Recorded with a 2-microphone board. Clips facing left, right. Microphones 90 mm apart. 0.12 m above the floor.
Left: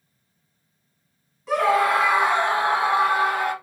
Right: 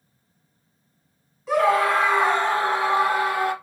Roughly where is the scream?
Centre.